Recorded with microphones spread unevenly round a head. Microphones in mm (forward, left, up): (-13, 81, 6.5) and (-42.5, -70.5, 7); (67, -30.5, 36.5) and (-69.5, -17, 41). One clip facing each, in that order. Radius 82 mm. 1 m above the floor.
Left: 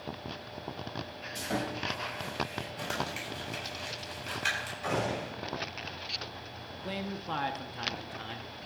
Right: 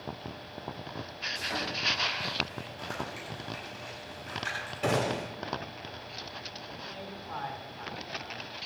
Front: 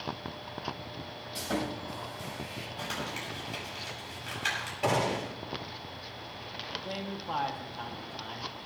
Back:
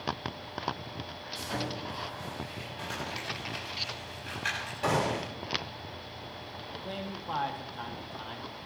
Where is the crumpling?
50° left, 9 m.